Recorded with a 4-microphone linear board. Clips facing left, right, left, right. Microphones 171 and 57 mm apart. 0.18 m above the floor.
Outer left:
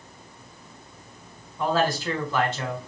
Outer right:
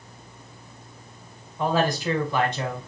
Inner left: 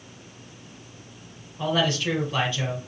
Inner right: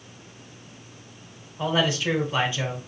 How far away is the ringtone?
No ringtone in this recording.